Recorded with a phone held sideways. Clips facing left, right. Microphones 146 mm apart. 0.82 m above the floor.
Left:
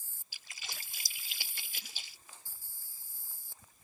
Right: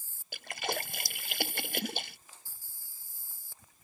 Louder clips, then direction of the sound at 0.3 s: Right 17 dB; 60° right (ahead or behind).